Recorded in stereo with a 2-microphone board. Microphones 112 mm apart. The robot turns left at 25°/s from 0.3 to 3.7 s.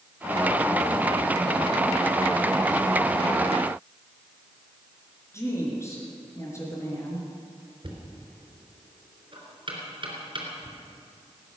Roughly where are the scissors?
No scissors in this recording.